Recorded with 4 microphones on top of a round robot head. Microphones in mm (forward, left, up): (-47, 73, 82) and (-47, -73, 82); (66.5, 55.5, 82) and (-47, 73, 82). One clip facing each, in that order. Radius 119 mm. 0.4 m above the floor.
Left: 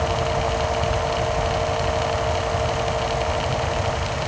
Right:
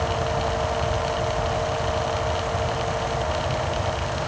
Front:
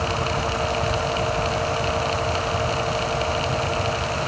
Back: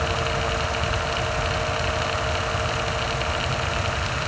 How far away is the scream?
No scream in this recording.